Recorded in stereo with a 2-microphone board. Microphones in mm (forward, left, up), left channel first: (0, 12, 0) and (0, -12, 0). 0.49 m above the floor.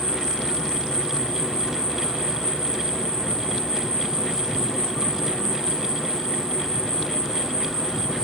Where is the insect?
30° left (ahead or behind), 7 m.